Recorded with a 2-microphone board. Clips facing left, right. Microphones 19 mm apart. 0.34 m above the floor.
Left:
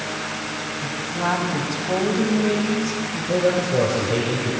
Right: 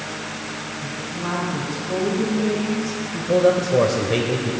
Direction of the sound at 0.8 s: 60° left (ahead or behind).